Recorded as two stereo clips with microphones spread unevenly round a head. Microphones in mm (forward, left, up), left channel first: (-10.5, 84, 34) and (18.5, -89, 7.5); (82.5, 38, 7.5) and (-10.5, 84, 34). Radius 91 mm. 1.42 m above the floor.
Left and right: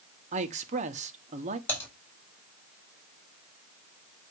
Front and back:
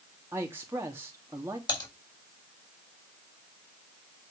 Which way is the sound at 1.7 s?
20° left.